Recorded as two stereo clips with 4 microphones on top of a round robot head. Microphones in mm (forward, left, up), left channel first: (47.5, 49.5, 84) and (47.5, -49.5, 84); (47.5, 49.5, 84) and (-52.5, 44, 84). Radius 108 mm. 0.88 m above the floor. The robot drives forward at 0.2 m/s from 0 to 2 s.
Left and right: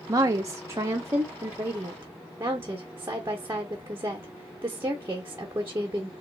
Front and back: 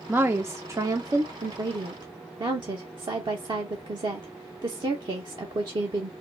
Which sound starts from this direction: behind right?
A woman speaking, at 0.1 s.